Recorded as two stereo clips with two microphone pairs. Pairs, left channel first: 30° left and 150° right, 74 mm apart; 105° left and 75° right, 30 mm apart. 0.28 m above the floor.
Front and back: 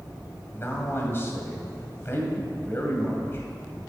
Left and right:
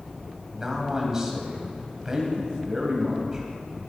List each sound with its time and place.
0.5 s a man speaking: 10° right, 2 m